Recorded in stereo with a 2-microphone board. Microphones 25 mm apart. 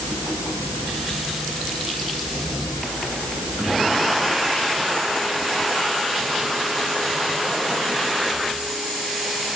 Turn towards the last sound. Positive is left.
No sound to turn to.